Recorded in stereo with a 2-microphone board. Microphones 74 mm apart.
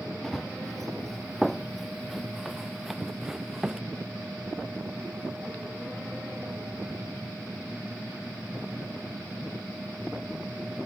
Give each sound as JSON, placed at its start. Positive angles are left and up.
{"t": 0.2, "sound": "running footsteps", "side_deg": 5}